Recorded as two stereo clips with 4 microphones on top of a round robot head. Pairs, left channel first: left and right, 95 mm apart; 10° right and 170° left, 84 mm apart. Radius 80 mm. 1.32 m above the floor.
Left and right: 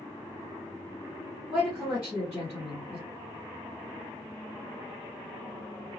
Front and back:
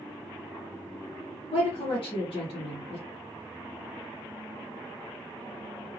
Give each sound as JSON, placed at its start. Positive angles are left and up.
{"t": 1.5, "sound": "a woman speaking", "azimuth_deg": 0, "distance_m": 1.0}